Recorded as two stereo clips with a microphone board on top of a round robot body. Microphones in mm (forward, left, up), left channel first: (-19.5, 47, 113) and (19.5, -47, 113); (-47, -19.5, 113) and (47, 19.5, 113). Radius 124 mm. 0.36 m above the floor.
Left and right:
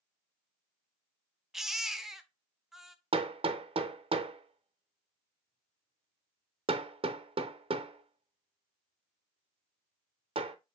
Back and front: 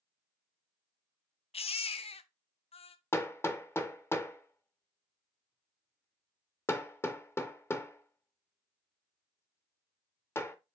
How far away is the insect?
I don't hear an insect.